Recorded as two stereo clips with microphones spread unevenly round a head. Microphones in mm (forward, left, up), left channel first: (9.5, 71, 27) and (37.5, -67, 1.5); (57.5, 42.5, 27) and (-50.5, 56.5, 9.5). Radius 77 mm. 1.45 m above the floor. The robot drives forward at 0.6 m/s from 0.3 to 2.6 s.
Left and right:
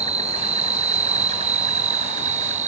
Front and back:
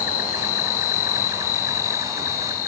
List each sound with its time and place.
0.0 s an insect: 30° right; by 2.7 s 40° right